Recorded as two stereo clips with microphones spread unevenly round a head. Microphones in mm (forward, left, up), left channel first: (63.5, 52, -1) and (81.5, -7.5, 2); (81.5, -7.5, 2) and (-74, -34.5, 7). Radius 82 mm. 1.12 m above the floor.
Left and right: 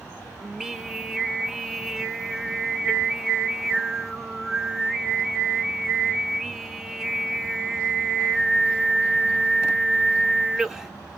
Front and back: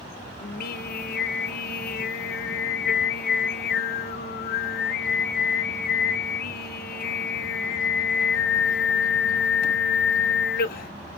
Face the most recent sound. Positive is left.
turn(degrees=5)